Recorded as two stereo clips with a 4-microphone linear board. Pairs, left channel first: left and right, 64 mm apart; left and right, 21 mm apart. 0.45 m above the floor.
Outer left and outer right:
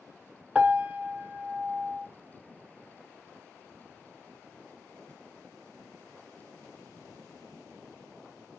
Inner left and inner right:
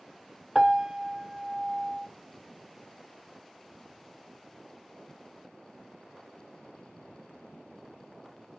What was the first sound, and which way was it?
A piano, 20° right (ahead or behind).